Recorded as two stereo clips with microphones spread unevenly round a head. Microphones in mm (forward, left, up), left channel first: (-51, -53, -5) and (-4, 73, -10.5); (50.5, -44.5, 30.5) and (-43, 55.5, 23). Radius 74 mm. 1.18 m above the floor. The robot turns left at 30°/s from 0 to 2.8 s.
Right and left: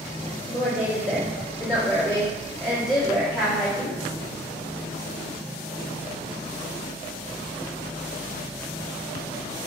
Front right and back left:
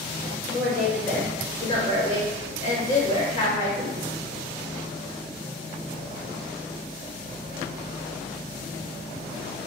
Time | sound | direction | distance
0.5 | a woman speaking | 50° left | 1.0 m